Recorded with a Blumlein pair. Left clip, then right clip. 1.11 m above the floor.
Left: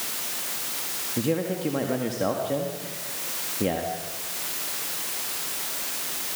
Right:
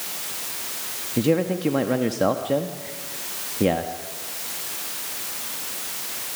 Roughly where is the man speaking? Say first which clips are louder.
Right 5 dB; ahead.